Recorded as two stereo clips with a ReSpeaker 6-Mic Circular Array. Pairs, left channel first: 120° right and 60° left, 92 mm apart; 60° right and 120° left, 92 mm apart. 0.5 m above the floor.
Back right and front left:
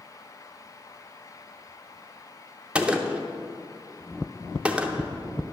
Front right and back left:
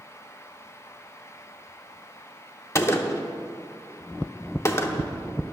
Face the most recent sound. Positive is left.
turn(degrees=-15)